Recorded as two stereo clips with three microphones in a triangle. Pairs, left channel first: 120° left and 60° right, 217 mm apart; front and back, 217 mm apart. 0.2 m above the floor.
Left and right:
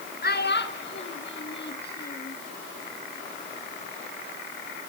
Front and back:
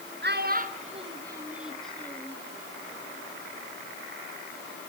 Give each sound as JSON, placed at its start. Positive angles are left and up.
{"t": 0.2, "sound": "a child speaking", "azimuth_deg": 155, "distance_m": 2.5}